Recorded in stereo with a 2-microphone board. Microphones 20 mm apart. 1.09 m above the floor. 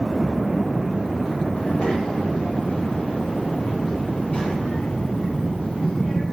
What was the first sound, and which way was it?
A child speaking, 85° left.